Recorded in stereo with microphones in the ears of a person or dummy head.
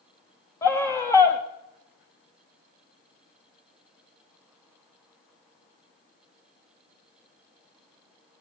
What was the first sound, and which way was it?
A scream, 15° left (ahead or behind).